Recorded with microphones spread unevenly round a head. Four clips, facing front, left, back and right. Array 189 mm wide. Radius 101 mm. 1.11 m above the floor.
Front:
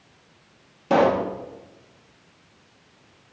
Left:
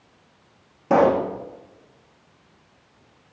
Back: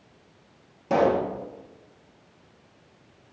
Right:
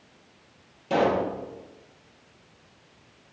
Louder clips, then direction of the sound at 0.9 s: Left 6 dB, front 3 dB; 55° left.